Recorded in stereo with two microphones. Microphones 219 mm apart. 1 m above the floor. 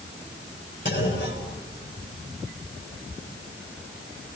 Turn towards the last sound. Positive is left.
turn(degrees=60)  # may be behind; listen again after turning